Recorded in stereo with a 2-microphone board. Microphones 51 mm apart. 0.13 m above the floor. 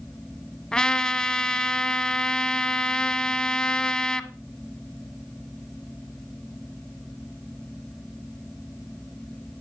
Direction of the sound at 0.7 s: 15° left (ahead or behind).